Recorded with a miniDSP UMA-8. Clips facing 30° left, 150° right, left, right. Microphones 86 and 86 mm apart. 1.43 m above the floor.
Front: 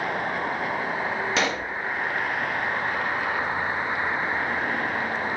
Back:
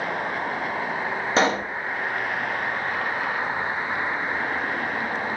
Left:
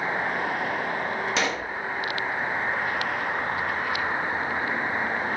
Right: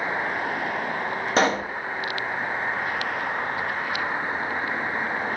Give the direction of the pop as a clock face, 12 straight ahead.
4 o'clock.